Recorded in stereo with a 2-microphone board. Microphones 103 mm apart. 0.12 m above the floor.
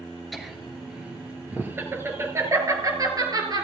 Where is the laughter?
Centre (ahead or behind), 2 m; by 3.6 s 40° right (ahead or behind), 2.5 m.